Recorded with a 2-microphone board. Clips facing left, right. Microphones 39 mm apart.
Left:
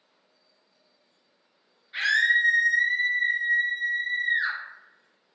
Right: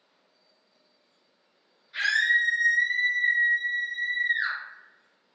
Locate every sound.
1.9 s a scream: 30° left (ahead or behind), 1.8 m; by 4.6 s 5° left (ahead or behind), 1.9 m